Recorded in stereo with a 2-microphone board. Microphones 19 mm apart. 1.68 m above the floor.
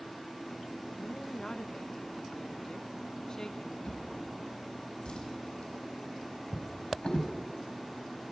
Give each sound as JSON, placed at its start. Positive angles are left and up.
{"t": 1.0, "sound": "a woman speaking", "side_deg": 40, "distance_m": 1.4}
{"t": 3.9, "sound": "a drawer", "side_deg": 60, "distance_m": 5.0}